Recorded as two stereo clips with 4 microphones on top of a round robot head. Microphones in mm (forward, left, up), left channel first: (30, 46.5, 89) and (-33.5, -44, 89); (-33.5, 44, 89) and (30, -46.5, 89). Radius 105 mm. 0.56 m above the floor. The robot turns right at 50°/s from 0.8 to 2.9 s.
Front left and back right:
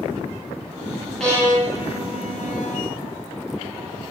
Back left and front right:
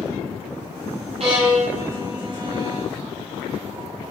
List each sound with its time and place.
1.2 s a violin: 30° right, 6 m; by 2.9 s 50° left, 6 m